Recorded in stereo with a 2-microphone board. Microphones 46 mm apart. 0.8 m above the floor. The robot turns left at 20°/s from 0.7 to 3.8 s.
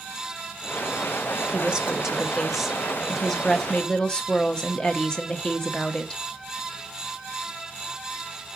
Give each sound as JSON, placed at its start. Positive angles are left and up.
{"t": 1.5, "sound": "a woman speaking", "azimuth_deg": -155, "distance_m": 1.2}